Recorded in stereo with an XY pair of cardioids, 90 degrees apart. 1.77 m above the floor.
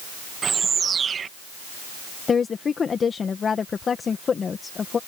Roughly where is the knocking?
No knocking in this recording.